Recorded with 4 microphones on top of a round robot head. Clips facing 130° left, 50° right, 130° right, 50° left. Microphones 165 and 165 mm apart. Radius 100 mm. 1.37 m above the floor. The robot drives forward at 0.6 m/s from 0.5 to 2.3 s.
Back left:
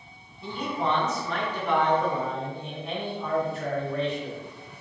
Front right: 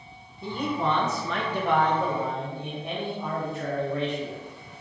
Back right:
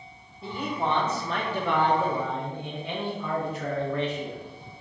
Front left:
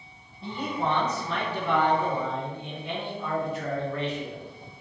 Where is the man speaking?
45° right, 1.0 m; by 4.4 s 120° right, 0.8 m.